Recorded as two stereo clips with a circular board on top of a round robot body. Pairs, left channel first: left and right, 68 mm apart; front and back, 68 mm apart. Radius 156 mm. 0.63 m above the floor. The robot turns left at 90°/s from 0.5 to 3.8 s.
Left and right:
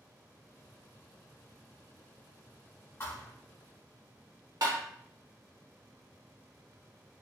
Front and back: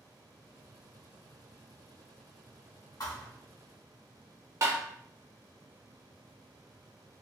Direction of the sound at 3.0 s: 35° left.